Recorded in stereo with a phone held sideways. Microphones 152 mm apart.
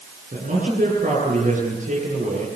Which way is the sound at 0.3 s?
55° right (ahead or behind).